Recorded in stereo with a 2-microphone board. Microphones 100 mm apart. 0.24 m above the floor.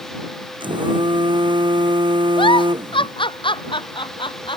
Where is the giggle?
60° left (ahead or behind).